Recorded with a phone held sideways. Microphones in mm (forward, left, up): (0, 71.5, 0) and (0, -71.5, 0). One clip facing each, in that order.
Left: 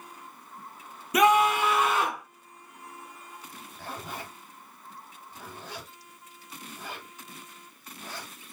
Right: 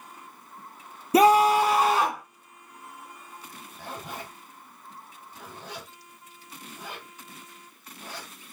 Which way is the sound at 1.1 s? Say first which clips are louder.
Right 4 dB; 30° right (ahead or behind).